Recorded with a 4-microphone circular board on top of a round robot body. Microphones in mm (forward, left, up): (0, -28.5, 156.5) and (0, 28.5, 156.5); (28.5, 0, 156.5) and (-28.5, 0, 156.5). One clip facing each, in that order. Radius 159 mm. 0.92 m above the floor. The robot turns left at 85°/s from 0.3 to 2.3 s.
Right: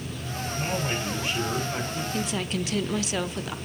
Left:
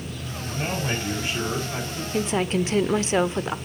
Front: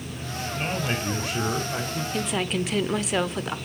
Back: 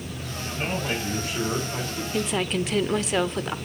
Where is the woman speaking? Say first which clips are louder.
Left 8 dB, back 2 dB; 100° left, 0.9 m; by 3.5 s 90° left, 0.9 m.